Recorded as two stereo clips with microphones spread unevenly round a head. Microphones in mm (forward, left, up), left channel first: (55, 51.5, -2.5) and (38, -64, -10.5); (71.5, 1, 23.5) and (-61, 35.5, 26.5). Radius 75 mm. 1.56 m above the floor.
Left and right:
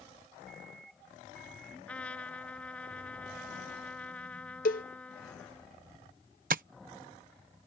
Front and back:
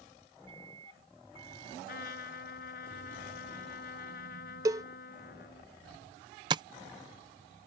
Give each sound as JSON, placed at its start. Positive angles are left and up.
{"t": 0.5, "sound": "a microwave", "azimuth_deg": -140}
{"t": 1.9, "sound": "a trumpet", "azimuth_deg": 5}
{"t": 4.7, "sound": "a cowbell", "azimuth_deg": 100}
{"t": 6.5, "sound": "tapping", "azimuth_deg": -130}